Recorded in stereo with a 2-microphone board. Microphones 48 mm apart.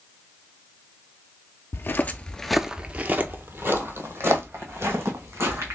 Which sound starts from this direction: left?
Footsteps, at 1.7 s.